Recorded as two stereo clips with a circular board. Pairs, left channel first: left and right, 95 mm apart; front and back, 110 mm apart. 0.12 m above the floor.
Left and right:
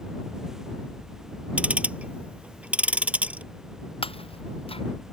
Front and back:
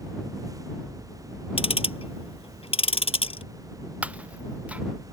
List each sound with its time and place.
1.6 s ticking: 15° right
4.0 s breaking glass: 100° left